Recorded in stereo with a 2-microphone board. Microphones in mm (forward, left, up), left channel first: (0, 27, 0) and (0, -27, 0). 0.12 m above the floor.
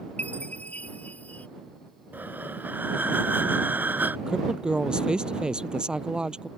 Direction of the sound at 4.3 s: 15° right (ahead or behind).